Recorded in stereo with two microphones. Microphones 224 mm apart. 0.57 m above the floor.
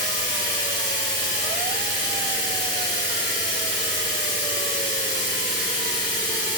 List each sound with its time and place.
0.0 s running water: 20° left (ahead or behind), 1.0 m